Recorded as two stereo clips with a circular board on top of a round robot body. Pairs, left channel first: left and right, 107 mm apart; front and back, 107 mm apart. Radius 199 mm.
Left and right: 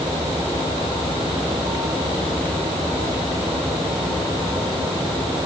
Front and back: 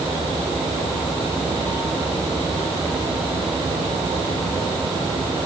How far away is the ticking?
I don't hear ticking.